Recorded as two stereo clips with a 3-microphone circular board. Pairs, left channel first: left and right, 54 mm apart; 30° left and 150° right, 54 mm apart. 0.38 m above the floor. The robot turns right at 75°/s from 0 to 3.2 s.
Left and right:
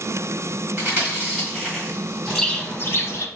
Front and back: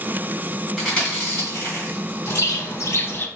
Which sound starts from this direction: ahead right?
Chewing, at 0.8 s.